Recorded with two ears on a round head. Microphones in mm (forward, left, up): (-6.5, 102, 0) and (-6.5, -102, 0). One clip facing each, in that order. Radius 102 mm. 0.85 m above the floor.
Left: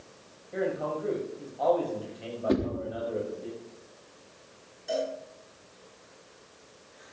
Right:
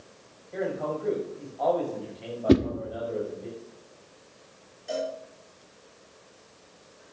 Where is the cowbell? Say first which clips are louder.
Even; 5° left (ahead or behind), 7 m.